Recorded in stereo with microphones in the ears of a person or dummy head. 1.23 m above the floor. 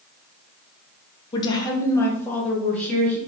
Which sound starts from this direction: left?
A woman speaking, at 1.3 s.